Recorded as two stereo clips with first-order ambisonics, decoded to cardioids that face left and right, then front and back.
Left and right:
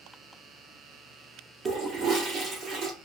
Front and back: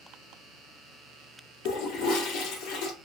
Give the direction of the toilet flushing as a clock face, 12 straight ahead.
1 o'clock.